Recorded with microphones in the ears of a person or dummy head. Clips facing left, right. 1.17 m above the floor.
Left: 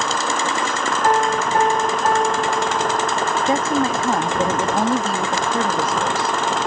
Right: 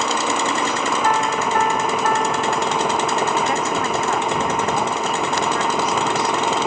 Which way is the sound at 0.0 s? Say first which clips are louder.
Right 1 dB; 5° right (ahead or behind).